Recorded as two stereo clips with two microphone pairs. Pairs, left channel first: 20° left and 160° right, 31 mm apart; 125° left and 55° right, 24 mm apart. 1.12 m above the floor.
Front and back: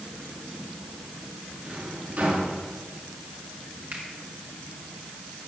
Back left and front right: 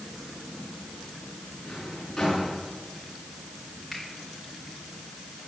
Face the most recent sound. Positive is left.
turn(degrees=-140)